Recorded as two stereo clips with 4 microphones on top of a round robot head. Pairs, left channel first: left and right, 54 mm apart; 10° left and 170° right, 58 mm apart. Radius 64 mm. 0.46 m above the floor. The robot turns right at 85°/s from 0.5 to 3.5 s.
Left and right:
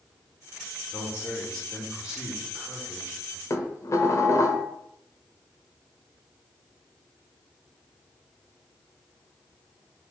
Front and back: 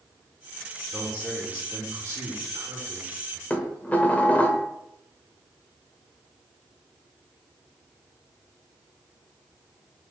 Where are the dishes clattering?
70° left, 1.1 m.